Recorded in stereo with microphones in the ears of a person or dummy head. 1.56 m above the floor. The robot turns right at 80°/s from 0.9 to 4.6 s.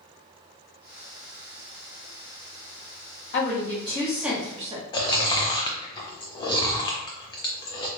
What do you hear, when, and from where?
3.3 s a woman speaking: 110° left, 1.1 m; by 4.8 s 150° right, 1.1 m
4.9 s chewing: 25° left (ahead or behind), 0.5 m